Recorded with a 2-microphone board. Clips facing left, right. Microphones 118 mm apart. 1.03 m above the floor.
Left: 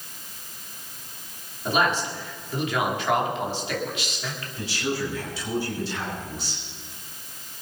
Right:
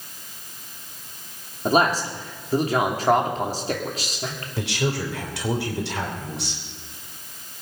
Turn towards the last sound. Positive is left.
turn(degrees=-85)